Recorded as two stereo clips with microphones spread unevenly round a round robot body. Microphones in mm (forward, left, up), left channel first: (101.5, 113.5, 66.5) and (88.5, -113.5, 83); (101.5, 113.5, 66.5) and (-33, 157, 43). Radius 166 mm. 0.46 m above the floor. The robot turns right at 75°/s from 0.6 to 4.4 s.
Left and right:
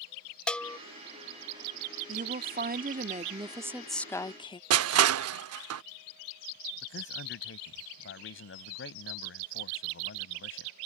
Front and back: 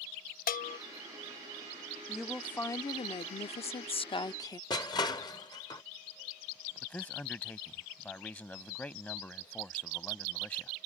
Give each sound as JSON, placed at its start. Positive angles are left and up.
{"t": 0.5, "sound": "a bell", "azimuth_deg": 0}
{"t": 2.1, "sound": "a woman speaking", "azimuth_deg": -130}
{"t": 4.7, "sound": "crushing", "azimuth_deg": -90}
{"t": 6.8, "sound": "a man speaking", "azimuth_deg": 60}